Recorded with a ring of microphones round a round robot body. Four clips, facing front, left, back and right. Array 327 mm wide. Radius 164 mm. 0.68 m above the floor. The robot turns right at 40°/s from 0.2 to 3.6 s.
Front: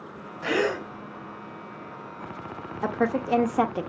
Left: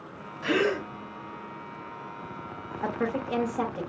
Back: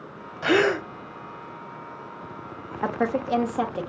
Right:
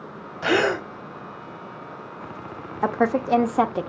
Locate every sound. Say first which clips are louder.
0.4 s a gasp: right 4 dB, back 5 dB; 120° right, 1.0 m; by 0.8 s 105° right, 1.0 m
2.8 s a woman speaking: right 8 dB, even; 100° right, 0.7 m; by 3.9 s 70° right, 0.7 m